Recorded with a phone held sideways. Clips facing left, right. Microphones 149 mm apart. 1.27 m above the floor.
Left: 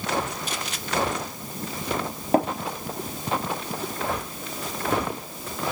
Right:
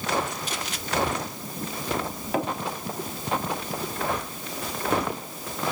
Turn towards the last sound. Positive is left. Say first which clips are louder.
# left 6 dB
turn(degrees=40)  # may be behind; listen again after turning